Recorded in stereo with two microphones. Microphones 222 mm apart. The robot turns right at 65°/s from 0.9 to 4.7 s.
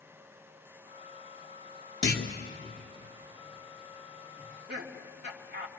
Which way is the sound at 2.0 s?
50° left (ahead or behind).